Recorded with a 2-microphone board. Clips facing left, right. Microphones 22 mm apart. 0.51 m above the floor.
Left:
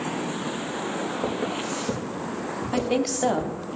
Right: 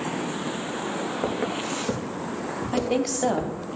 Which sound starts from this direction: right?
Footsteps, at 1.2 s.